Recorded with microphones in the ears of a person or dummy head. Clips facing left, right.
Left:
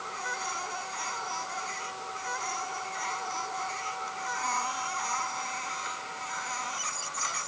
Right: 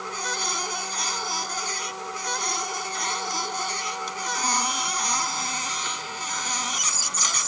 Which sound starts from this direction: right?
A machine running, at 0.0 s.